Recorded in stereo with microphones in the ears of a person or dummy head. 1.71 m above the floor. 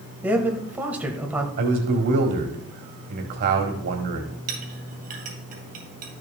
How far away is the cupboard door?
No cupboard door in this recording.